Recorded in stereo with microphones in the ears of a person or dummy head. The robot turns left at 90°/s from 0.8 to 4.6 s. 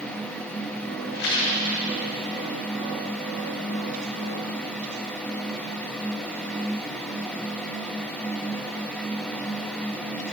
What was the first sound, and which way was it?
A rattle, 125° left.